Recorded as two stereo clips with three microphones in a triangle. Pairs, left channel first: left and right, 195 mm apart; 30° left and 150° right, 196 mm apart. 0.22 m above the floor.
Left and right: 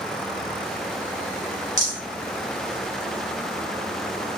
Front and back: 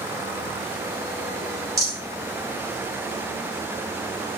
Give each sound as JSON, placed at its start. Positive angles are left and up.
{"t": 1.8, "sound": "a rattle", "azimuth_deg": 140, "distance_m": 1.2}